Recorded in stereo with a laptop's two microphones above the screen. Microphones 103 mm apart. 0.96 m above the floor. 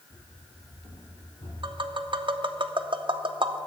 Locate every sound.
0.1 s running footsteps: 45° left (ahead or behind), 1.3 m; by 1.5 s 65° left (ahead or behind), 3 m
1.6 s tapping: 50° right (ahead or behind), 0.5 m